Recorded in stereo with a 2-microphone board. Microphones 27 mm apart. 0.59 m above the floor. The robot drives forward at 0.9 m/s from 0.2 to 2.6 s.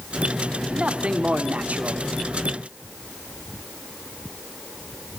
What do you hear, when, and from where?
0.7 s a man speaking: 40° right (ahead or behind), 1.6 m; by 2.0 s 55° right (ahead or behind), 1.3 m